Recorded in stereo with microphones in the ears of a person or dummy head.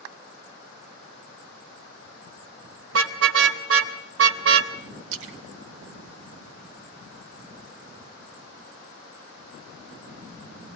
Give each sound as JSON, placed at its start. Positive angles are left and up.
{"t": 2.9, "sound": "a car horn", "side_deg": -70, "distance_m": 2.0}
{"t": 5.1, "sound": "a splash", "side_deg": -70, "distance_m": 2.0}